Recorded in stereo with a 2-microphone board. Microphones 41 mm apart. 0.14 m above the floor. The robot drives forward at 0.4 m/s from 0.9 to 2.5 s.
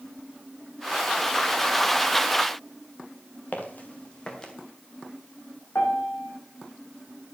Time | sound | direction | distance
3.5 | footsteps | 50° left (ahead or behind) | 2.5 m
5.8 | a piano | 80° left | 4 m